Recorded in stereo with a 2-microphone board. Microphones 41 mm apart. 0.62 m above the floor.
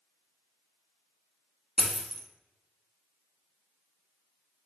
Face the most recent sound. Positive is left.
turn(degrees=0)  # may be behind; listen again after turning